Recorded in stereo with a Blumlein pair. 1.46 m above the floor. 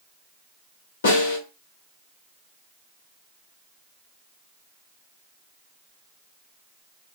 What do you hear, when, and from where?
1.0 s a snare drum: 65° left, 2 m